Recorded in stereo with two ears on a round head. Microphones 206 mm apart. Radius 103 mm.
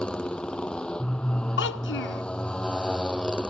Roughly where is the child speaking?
Left.